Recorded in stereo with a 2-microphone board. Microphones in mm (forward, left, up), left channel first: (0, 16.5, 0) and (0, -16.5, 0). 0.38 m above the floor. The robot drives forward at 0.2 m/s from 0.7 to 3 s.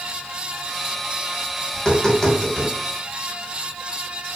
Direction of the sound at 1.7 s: 20° left (ahead or behind).